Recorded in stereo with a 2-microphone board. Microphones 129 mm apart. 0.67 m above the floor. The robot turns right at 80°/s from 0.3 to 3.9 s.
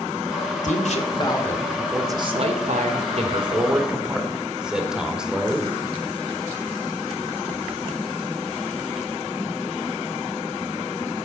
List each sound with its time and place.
0.6 s a man speaking: 95° left, 2 m; by 5.7 s 5° right, 2 m